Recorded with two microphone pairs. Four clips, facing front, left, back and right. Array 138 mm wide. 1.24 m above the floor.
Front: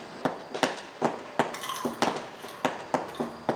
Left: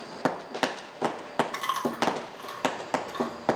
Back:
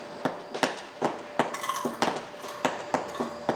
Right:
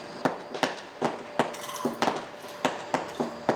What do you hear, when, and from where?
1.5 s chewing: 115° left, 3.5 m